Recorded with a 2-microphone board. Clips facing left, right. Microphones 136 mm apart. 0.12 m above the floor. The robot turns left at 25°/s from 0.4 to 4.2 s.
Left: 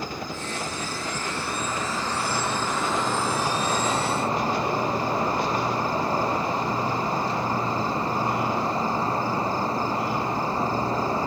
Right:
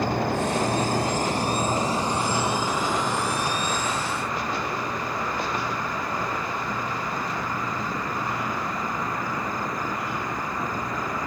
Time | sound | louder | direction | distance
0.0 | an insect | right 9 dB | 115° right | ?